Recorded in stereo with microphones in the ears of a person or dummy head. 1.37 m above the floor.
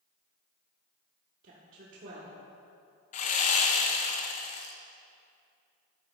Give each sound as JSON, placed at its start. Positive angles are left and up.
{"t": 1.4, "sound": "a woman speaking", "side_deg": -50, "distance_m": 1.3}
{"t": 3.1, "sound": "sawing", "side_deg": 40, "distance_m": 0.8}